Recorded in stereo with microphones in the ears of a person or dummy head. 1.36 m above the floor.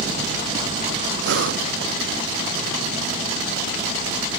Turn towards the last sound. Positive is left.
turn(degrees=-65)  # may be behind; listen again after turning